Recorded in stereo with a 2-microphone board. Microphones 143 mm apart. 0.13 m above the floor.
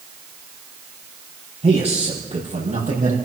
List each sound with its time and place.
1.6 s a man speaking: 45° right (ahead or behind), 4.5 m; by 3.1 s 60° right (ahead or behind), 5 m